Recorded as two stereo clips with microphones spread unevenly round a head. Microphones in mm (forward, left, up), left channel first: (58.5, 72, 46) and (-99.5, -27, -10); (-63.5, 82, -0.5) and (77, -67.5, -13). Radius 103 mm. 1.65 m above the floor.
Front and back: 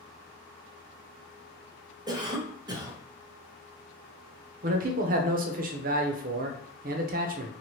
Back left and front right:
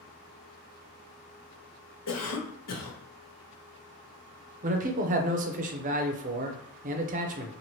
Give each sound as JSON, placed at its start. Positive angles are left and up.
{"t": 2.1, "sound": "a cough", "azimuth_deg": 145, "distance_m": 1.0}
{"t": 4.6, "sound": "a man speaking", "azimuth_deg": -100, "distance_m": 0.5}